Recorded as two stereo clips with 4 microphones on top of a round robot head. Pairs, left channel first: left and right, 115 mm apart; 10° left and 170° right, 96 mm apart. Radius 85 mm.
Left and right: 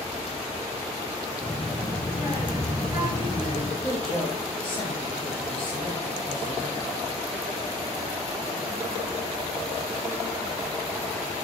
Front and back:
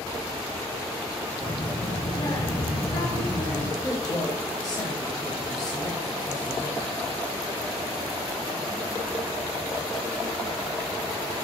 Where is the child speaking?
25° right, 4.5 m.